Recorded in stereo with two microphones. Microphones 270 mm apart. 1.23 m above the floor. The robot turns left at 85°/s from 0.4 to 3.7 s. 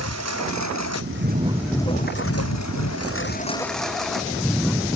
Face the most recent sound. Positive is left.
turn(degrees=0)  # may be behind; listen again after turning